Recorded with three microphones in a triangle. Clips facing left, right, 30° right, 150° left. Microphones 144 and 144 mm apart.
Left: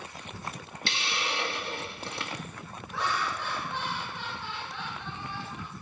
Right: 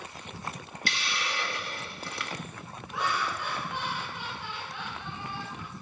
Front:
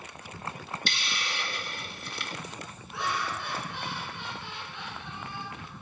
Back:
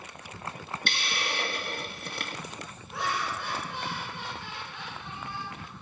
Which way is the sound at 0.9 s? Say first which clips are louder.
Left 1 dB, back 5 dB; 145° left.